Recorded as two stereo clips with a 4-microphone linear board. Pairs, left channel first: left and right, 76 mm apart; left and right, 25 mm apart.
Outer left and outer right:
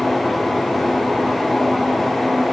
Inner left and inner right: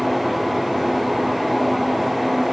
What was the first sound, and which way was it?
Only background noise.